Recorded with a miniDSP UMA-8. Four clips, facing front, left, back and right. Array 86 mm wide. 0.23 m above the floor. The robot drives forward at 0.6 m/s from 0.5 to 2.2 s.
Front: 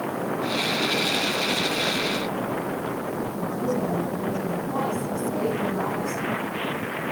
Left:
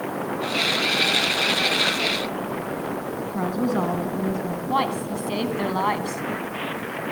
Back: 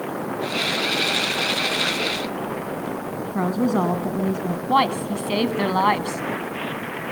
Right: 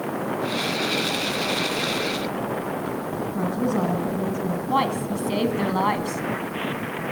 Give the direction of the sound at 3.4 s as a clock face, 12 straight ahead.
6 o'clock.